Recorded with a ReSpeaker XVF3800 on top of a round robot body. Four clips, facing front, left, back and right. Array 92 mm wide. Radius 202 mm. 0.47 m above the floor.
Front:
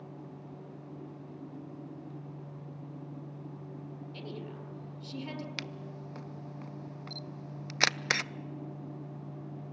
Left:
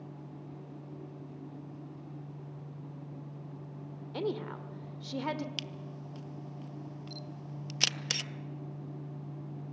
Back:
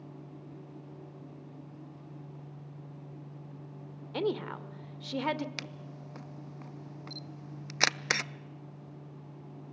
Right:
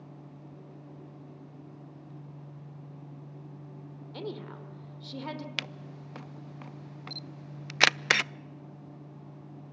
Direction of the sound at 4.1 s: 170° left.